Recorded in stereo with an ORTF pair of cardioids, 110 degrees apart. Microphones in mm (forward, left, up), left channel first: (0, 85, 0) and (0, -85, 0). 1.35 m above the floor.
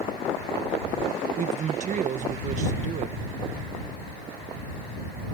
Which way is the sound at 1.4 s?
45° right.